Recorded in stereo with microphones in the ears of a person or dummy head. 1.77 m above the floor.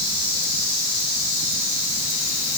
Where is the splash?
No splash in this recording.